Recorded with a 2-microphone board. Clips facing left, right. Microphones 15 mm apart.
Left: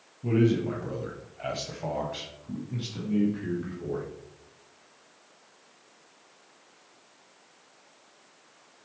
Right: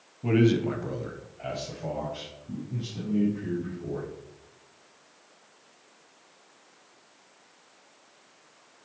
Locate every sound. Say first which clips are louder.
0.2 s a man speaking: right 2 dB; 30° right (ahead or behind), 1.1 m; by 4.0 s 60° left (ahead or behind), 2.5 m